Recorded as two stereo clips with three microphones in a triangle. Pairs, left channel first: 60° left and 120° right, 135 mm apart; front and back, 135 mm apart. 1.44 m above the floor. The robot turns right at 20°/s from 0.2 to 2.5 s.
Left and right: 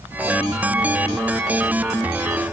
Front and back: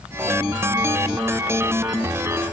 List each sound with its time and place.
Only background noise.